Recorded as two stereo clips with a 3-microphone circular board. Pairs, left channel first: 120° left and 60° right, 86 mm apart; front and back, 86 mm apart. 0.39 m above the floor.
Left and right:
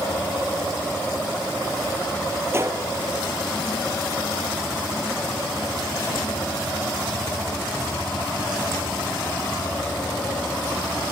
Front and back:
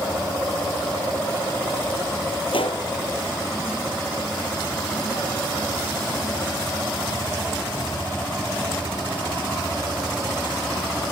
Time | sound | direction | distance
2.5 | a gunshot | straight ahead | 2.5 m